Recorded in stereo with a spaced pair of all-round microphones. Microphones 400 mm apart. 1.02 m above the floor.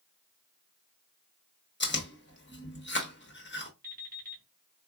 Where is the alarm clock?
20° right (ahead or behind), 2 m.